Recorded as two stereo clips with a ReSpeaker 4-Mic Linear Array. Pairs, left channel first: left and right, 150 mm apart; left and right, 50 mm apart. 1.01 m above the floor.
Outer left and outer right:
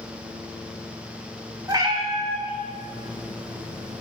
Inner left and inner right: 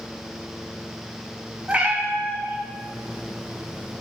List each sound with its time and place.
1.7 s a cat meowing: 20° right (ahead or behind), 0.8 m; by 4.0 s 55° right (ahead or behind), 2.5 m